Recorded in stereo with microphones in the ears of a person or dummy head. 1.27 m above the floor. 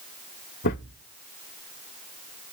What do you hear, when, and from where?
0.6 s a thud: 50° left (ahead or behind), 1.1 m